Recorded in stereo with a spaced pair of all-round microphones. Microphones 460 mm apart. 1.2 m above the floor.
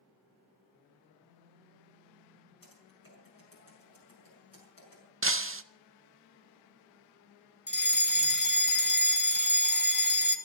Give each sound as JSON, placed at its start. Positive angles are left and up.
{"t": 1.2, "sound": "a phone buzzing", "side_deg": 70, "distance_m": 4.5}
{"t": 2.6, "sound": "typing on a keyboard", "side_deg": 45, "distance_m": 6.5}
{"t": 5.2, "sound": "breaking glass", "side_deg": -30, "distance_m": 0.5}
{"t": 7.7, "sound": "a fire alarm", "side_deg": 20, "distance_m": 0.9}